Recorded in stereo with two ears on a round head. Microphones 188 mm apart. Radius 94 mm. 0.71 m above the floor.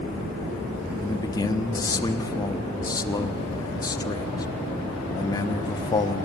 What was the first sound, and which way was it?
A man speaking, 20° left (ahead or behind).